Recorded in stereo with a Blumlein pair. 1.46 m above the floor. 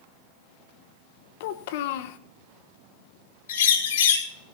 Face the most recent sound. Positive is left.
turn(degrees=60)